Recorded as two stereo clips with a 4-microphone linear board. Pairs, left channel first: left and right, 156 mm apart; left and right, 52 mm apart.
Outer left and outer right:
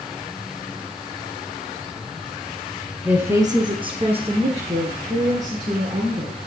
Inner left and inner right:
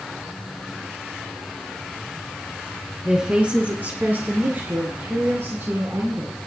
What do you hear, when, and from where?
3.0 s a woman speaking: 10° right (ahead or behind), 1.8 m; by 6.4 s 55° right (ahead or behind), 5.5 m